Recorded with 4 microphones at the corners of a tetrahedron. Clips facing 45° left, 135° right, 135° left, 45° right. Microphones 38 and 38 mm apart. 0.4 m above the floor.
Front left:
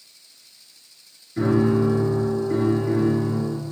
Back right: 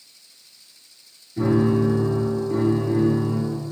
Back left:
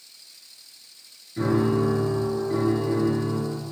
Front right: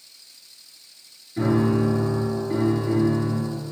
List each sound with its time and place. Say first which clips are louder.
1.4 s a piano: even, front right 1 dB; 45° left, 3 m